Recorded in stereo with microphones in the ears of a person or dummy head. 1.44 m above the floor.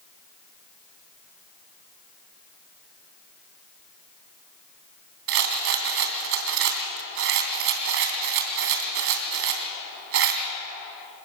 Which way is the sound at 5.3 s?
60° right (ahead or behind).